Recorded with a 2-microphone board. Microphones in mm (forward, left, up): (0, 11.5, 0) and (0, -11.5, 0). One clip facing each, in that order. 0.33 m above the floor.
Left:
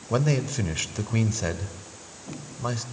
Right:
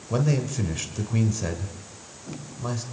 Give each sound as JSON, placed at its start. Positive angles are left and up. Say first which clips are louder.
{"t": 0.1, "sound": "a man speaking", "louder": "even", "side_deg": 25, "distance_m": 1.1}